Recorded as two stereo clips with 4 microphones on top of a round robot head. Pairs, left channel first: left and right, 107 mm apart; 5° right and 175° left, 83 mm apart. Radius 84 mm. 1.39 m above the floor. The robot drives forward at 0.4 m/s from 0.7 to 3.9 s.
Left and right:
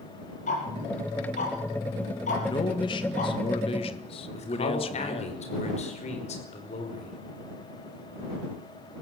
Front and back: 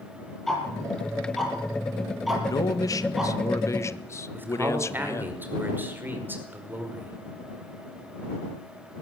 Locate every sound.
0.5 s ticking: 80° left, 6 m; by 3.3 s 90° left, 6 m
2.5 s a man speaking: 35° left, 2.0 m; by 5.3 s 50° left, 1.5 m
4.3 s a man speaking: 105° left, 5 m